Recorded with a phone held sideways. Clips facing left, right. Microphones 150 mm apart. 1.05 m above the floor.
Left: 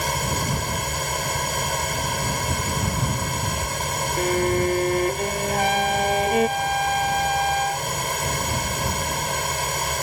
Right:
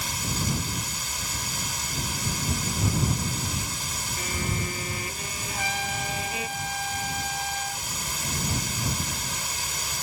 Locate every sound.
0.0 s a fan: 65° left (ahead or behind)
4.2 s a violin: 60° left (ahead or behind)
5.5 s a trumpet: 60° left (ahead or behind)